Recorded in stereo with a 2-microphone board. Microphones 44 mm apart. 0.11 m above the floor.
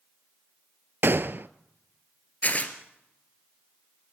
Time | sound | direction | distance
1.0 | a gunshot | 55° right (ahead or behind) | 0.6 m
2.4 | tearing paper | 35° left (ahead or behind) | 2.0 m